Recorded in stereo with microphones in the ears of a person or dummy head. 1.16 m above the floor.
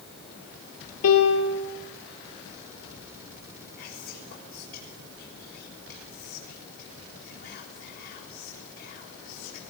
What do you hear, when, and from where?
1.0 s a piano: 80° left, 6.5 m
3.8 s whispering: 55° left (ahead or behind), 3.5 m